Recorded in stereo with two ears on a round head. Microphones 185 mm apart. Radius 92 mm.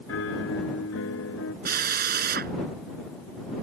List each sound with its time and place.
0.1 s a piano: 75° left (ahead or behind)
1.6 s a drill: 50° right (ahead or behind)